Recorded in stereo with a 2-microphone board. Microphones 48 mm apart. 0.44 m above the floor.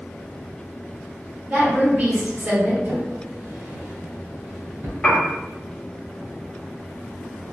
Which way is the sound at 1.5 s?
45° right (ahead or behind).